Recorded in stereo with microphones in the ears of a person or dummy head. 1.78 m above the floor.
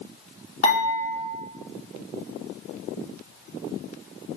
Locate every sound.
0.6 s dishes clattering: 40° left (ahead or behind), 1.6 m